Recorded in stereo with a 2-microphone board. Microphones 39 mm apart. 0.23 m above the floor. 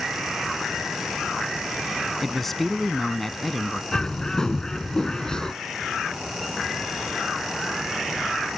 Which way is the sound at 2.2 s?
5° left (ahead or behind).